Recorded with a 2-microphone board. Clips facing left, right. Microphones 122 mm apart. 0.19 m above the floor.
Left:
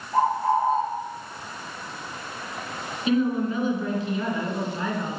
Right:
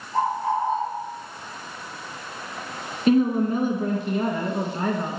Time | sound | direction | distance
0.1 | a bird | 40° left (ahead or behind) | 3 m
3.1 | a woman speaking | 50° right (ahead or behind) | 1.9 m